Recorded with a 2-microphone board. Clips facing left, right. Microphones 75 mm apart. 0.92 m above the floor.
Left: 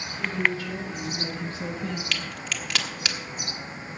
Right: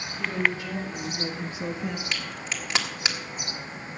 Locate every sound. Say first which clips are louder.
0.2 s a woman speaking: even; 20° right (ahead or behind), 3.5 m; by 2.0 s 10° right (ahead or behind), 1.0 m
2.1 s a crack: left 1 dB; 25° right (ahead or behind), 1.4 m